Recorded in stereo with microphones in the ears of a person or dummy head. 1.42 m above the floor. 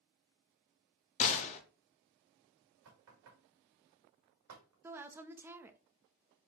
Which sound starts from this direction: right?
Knocking, at 2.9 s.